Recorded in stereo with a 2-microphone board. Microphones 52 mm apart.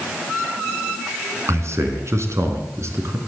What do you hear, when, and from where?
1.5 s a man speaking: 60° right (ahead or behind), 3.5 m